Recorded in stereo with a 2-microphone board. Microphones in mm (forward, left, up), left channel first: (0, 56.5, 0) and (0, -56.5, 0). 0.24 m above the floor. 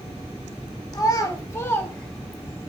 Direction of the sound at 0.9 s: 35° left (ahead or behind).